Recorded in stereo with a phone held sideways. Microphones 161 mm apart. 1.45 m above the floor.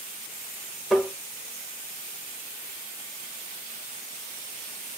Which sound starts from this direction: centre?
Tapping, at 0.9 s.